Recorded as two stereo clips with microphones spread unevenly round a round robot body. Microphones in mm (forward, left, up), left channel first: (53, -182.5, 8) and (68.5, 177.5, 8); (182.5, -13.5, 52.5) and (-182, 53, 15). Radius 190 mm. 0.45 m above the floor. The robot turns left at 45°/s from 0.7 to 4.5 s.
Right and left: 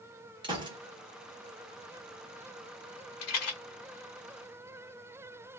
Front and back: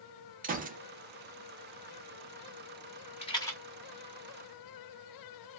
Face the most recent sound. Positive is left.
turn(degrees=-140)